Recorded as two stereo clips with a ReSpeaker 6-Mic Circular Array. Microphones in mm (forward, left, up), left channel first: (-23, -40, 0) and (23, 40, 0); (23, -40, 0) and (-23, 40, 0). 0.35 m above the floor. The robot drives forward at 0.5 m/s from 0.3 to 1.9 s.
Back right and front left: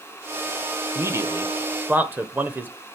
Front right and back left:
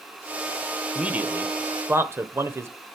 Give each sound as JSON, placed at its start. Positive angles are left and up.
{"t": 0.9, "sound": "a man speaking", "azimuth_deg": 50, "distance_m": 1.0}